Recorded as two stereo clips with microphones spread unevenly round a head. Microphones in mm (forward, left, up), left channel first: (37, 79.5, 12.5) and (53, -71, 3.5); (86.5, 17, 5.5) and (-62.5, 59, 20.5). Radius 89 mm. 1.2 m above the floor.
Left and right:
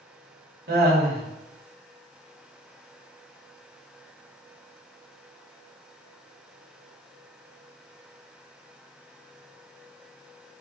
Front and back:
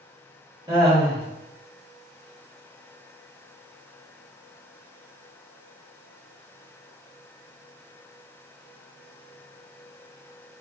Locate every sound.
0.7 s laughter: 125° right, 1.7 m